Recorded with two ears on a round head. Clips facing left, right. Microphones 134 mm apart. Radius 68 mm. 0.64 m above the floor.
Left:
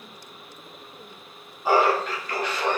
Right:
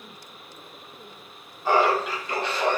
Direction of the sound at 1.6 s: 10° left (ahead or behind).